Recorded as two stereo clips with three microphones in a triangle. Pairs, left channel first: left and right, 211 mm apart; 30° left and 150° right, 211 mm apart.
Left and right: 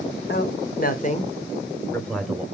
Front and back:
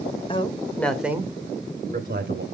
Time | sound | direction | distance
0.3 | a man speaking | 85° left | 1.9 m